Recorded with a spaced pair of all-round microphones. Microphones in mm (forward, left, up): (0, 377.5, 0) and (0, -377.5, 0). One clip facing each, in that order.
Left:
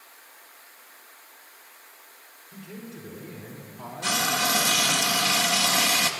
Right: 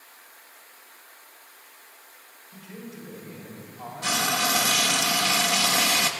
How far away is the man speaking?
About 4.5 m.